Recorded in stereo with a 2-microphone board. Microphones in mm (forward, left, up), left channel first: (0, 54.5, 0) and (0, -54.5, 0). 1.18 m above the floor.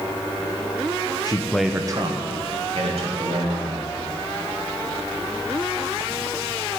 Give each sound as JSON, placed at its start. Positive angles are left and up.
{"t": 1.2, "sound": "a man speaking", "side_deg": 40, "distance_m": 0.8}